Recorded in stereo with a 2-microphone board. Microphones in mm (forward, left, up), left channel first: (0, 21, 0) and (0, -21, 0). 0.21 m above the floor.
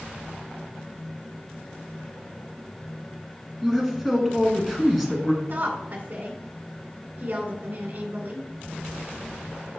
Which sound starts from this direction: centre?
A man speaking, at 3.6 s.